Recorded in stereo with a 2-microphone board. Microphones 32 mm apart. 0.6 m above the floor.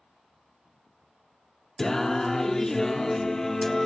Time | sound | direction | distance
1.8 | singing | 15° left (ahead or behind) | 0.6 m